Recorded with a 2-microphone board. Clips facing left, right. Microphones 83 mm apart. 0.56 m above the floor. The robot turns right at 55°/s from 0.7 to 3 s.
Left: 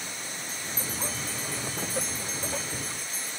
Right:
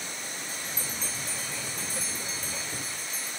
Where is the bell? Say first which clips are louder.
Left 1 dB; 30° left (ahead or behind), 1.6 m; by 3.3 s 75° right (ahead or behind), 1.6 m.